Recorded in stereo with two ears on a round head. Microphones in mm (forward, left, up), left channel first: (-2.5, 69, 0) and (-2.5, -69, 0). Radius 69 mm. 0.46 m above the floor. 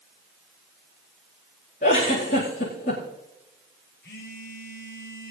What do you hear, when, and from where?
1.8 s a giggle: 60° left (ahead or behind), 9 m
4.0 s a phone buzzing: 70° left (ahead or behind), 5.5 m